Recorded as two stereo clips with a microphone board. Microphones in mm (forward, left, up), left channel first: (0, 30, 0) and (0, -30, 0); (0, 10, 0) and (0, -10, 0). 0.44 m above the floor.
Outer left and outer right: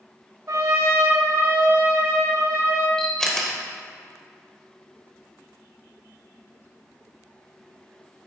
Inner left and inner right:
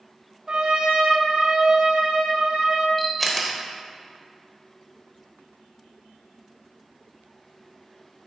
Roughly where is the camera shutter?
Centre.